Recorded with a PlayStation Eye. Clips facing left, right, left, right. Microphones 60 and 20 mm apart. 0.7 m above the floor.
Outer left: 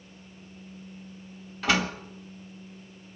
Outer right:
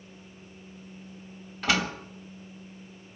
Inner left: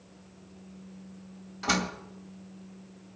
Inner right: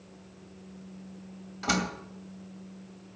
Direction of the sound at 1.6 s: Centre (ahead or behind).